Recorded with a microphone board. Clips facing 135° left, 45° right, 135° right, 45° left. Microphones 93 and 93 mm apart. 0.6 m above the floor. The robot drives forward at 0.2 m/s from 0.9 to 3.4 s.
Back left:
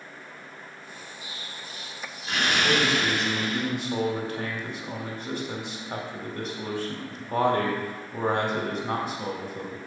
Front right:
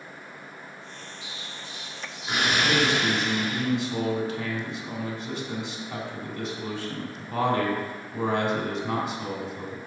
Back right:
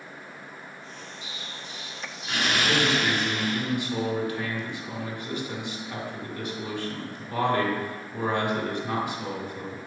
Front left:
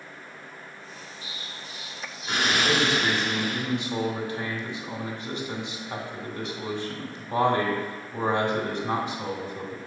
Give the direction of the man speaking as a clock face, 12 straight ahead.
9 o'clock.